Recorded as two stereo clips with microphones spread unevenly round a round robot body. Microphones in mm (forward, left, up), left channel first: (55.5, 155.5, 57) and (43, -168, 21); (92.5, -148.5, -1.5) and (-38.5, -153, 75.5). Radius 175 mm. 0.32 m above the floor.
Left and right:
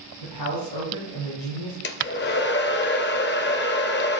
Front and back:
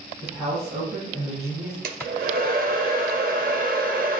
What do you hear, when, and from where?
0.2 s a man speaking: 80° left, 3.5 m
1.8 s a hair dryer: 140° left, 0.7 m